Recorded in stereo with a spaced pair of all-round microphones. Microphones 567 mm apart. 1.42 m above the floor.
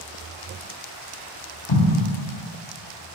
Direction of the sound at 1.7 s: 50° left (ahead or behind).